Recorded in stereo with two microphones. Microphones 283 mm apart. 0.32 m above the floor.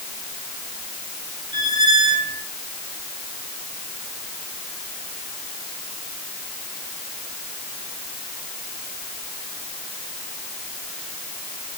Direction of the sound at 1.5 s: 75° right (ahead or behind).